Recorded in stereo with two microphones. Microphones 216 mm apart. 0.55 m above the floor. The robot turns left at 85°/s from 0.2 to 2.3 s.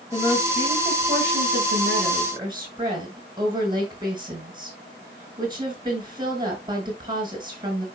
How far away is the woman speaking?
About 7 m.